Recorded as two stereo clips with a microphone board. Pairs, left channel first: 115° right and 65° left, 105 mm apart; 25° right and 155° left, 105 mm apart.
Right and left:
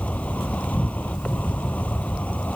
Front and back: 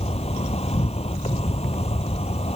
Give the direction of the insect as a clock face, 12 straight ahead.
1 o'clock.